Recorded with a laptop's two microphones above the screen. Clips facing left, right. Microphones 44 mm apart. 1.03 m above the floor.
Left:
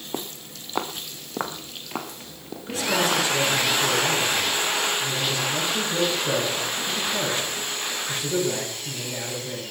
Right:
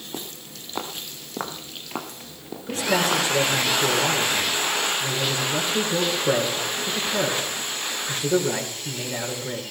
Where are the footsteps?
30° left (ahead or behind), 2 m; by 3.3 s 10° right (ahead or behind), 2.5 m.